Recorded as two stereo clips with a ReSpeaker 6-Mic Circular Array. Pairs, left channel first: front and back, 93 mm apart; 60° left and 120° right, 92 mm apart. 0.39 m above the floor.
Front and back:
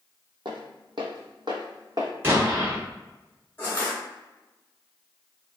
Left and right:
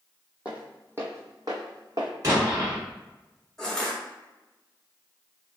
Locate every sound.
0.5 s footsteps: 165° left, 0.8 m; by 2.1 s 145° right, 1.1 m
2.2 s an explosion: 130° right, 1.2 m
3.6 s crushing: 15° right, 1.2 m